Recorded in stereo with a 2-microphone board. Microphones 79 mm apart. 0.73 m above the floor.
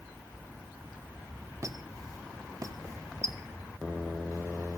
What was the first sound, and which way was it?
A squeak, 45° right (ahead or behind).